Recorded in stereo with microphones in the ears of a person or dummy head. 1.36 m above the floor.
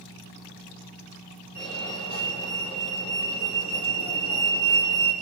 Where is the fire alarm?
30° left (ahead or behind), 7 m.